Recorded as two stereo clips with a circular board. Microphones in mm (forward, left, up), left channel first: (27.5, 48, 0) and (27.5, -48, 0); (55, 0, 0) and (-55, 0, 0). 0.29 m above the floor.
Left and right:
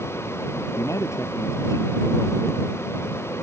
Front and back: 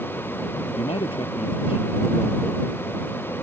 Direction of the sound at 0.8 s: 35° left.